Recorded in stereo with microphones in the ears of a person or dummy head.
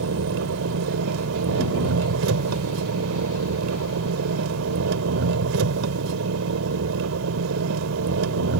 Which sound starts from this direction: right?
An engine running, at 0.0 s.